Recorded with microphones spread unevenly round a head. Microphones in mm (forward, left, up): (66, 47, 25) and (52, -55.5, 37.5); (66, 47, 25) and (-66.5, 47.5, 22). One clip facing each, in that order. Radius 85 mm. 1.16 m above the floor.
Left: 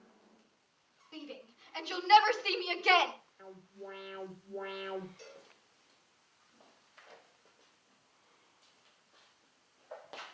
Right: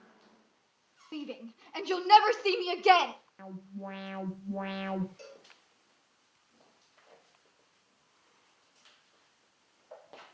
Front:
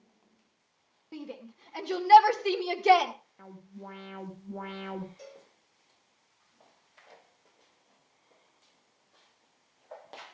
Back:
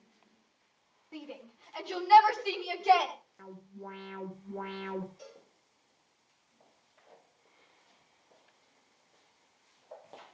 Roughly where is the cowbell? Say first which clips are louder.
Right 3 dB, front 3 dB; ahead right.